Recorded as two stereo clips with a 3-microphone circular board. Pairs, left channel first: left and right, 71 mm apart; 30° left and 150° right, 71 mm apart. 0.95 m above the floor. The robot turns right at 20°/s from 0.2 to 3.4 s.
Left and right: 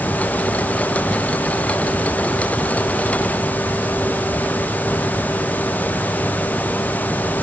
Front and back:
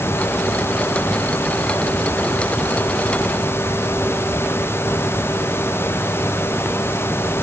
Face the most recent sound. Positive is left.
No sound to turn to.